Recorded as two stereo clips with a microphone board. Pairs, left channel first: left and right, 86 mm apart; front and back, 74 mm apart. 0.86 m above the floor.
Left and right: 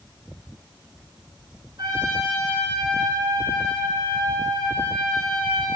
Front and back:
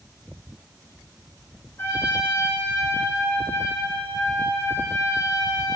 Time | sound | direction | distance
1.8 | a trumpet | 55° right | 4.5 m